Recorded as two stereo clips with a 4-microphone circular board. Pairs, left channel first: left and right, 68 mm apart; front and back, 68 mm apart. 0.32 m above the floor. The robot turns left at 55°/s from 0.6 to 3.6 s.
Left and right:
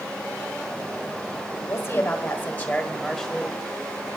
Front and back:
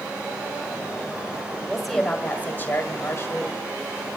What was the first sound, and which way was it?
A woman speaking, 95° left.